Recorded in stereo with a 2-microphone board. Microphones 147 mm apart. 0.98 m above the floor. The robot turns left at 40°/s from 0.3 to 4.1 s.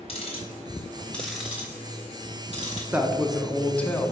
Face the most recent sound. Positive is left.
turn(degrees=150)